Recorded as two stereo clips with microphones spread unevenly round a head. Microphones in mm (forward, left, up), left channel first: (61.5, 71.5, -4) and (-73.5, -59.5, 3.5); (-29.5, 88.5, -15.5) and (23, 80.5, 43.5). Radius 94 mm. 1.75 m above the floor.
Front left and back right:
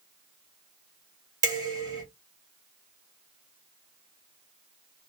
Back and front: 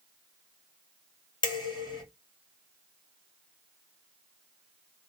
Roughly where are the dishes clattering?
Behind.